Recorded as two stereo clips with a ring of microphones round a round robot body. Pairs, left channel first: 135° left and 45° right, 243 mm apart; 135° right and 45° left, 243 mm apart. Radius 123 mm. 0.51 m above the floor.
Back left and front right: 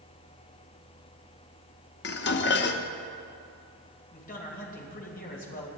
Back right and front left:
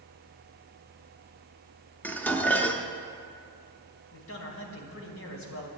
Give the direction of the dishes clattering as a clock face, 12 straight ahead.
7 o'clock.